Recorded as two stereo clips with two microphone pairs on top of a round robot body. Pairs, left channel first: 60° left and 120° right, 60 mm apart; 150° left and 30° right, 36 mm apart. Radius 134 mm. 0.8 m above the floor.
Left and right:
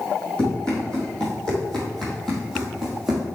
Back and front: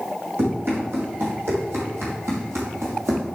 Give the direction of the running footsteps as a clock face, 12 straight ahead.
1 o'clock.